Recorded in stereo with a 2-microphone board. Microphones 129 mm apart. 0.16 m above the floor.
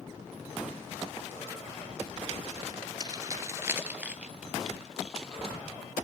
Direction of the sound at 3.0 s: 35° right (ahead or behind).